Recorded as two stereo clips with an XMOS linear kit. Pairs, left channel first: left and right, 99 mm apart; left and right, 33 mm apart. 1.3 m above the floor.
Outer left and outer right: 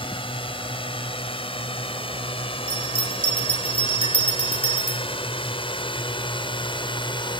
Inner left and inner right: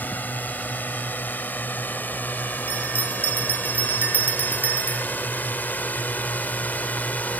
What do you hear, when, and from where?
0.0 s a drone: 75° left (ahead or behind); by 7.4 s 60° left (ahead or behind)
2.7 s a bell: 80° right